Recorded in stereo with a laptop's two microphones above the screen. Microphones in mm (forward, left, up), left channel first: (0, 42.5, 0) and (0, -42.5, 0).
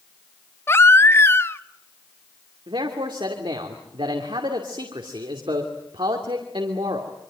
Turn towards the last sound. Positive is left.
turn(degrees=-75)  # may be behind; listen again after turning